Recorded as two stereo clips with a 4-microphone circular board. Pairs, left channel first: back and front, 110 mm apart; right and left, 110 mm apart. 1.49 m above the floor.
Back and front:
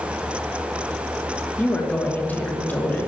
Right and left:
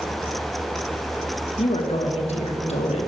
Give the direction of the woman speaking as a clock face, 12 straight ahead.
4 o'clock.